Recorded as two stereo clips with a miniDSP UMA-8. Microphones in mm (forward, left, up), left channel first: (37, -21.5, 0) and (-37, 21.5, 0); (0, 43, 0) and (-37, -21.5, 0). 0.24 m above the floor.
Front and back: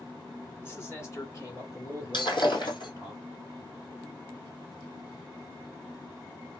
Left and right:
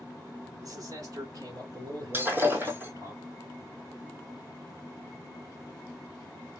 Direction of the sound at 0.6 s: 90° right.